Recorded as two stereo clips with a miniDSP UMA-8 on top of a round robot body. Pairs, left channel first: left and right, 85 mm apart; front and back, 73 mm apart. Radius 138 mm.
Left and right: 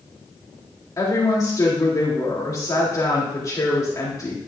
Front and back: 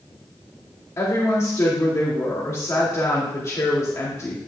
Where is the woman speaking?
45° left, 2 m.